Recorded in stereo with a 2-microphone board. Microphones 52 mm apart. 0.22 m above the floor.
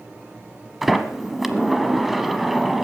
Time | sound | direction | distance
0.8 | a sliding door | centre (ahead or behind) | 1.0 m